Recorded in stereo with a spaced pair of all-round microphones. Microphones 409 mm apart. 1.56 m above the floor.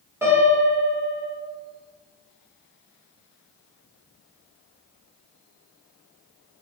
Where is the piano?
5° right (ahead or behind), 2.5 m.